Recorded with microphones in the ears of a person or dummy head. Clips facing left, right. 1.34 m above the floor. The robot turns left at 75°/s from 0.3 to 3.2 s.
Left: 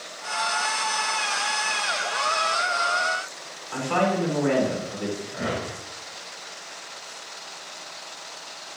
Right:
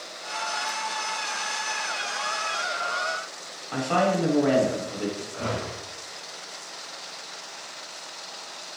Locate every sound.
3.7 s a woman speaking: 65° right (ahead or behind), 4 m
5.3 s a whoosh: 25° left (ahead or behind), 1.5 m